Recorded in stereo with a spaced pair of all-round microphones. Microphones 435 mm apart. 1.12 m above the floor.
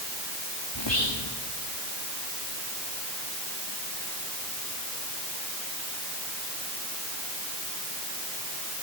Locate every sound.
0.8 s whispering: 85° left, 1.8 m